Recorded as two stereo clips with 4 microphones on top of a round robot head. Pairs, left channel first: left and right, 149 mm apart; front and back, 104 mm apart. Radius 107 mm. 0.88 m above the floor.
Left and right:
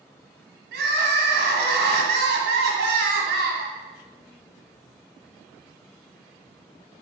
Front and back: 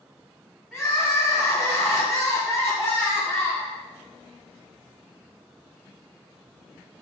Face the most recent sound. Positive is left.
turn(degrees=-90)